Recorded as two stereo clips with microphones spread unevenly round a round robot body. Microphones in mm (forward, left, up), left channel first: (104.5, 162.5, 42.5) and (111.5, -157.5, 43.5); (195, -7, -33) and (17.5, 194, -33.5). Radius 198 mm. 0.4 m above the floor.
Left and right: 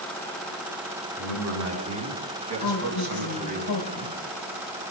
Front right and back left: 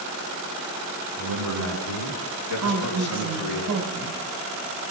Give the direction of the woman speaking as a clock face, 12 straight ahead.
8 o'clock.